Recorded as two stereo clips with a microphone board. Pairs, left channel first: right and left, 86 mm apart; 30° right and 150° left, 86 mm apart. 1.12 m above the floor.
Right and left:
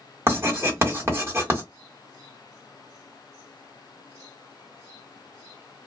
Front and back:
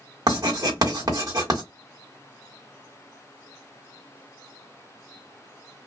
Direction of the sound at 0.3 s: 140° left.